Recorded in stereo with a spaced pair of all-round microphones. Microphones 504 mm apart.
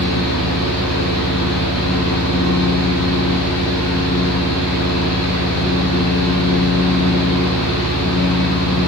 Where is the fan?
55° left (ahead or behind), 4.5 m.